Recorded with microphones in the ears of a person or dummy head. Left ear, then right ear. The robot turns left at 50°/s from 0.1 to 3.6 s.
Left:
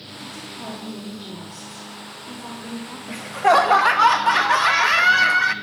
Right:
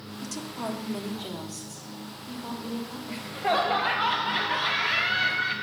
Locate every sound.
0.2 s a woman speaking: 85° right, 1.3 m; by 3.0 s 140° left, 1.3 m
3.1 s laughter: 20° left (ahead or behind), 0.5 m; by 5.5 s 45° left (ahead or behind), 0.5 m